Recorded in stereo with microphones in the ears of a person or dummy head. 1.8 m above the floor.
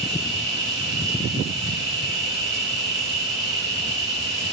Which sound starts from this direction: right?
An insect, at 0.0 s.